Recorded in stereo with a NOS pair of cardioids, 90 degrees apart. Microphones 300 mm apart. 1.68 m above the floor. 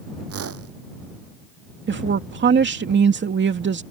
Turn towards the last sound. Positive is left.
turn(degrees=-40)